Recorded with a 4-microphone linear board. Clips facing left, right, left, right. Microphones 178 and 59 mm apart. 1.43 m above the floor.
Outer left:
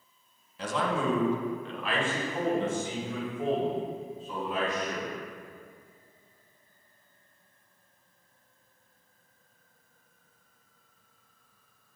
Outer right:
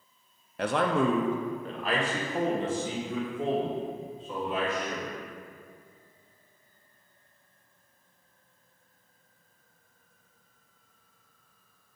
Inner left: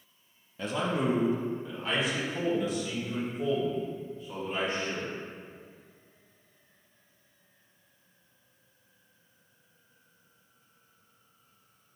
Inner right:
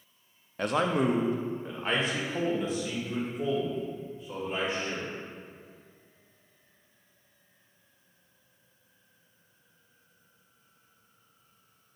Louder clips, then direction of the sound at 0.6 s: Outer right 4 dB, inner right 3 dB; 65° right (ahead or behind).